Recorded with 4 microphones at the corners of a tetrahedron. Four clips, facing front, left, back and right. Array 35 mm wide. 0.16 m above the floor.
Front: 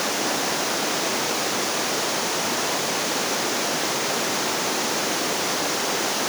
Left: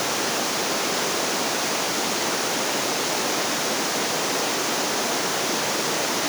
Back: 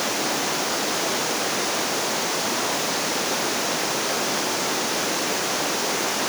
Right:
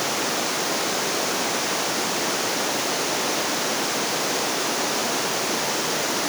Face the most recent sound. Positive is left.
No sound to turn to.